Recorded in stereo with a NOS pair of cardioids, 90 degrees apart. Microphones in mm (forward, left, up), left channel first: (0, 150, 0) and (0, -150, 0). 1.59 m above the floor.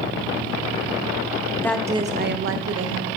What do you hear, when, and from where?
1.6 s a woman speaking: 10° left, 0.7 m; by 3.1 s 60° right, 1.4 m